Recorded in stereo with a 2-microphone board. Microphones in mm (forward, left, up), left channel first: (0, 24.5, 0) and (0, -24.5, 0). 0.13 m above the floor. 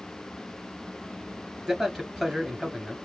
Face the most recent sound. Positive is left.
turn(degrees=-10)  # may be behind; listen again after turning